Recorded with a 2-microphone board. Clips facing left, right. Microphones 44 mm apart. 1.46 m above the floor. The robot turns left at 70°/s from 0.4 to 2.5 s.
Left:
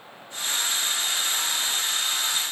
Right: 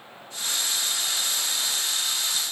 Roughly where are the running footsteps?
I don't hear running footsteps.